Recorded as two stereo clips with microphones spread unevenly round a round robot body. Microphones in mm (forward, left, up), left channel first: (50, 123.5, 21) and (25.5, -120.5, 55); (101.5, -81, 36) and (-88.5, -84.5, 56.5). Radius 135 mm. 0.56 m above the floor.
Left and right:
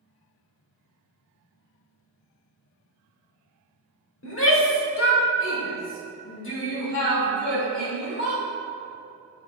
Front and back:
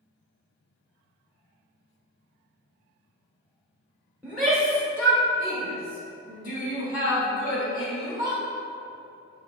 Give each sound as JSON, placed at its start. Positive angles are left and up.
{"t": 4.2, "sound": "a shout", "azimuth_deg": 95, "distance_m": 1.5}